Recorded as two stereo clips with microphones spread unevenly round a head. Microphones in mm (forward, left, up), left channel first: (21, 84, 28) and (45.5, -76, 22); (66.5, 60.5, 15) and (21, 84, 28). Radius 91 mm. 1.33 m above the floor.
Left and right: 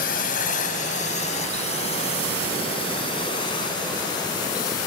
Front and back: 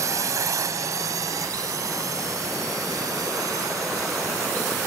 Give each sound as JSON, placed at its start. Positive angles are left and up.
{"t": 0.0, "sound": "a drone", "azimuth_deg": 145}